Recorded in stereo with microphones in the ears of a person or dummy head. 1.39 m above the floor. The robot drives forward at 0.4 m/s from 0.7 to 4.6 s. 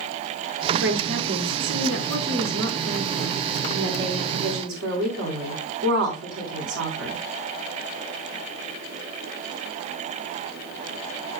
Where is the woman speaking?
85° right, 4 m; by 7.2 s 75° right (ahead or behind), 4 m.